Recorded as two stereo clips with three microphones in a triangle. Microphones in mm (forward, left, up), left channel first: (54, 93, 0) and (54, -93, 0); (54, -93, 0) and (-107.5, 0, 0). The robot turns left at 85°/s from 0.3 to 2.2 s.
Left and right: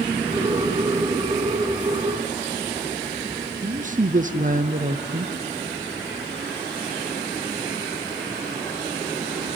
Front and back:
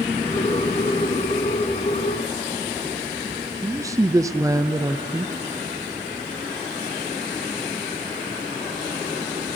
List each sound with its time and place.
3.6 s a man speaking: 135° right, 0.7 m